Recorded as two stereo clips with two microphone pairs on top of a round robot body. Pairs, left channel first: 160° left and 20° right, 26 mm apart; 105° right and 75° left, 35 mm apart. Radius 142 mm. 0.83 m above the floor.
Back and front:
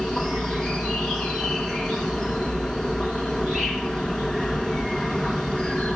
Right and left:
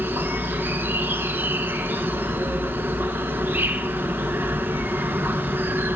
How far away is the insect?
About 1.1 m.